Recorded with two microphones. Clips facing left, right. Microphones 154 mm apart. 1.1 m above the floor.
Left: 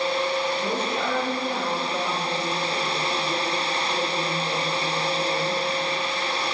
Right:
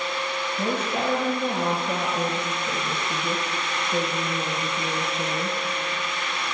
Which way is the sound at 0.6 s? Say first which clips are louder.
Even; 85° right.